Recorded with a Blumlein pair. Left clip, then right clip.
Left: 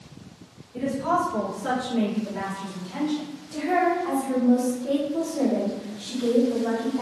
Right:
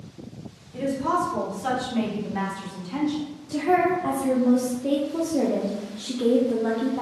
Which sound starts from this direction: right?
A woman speaking, at 0.7 s.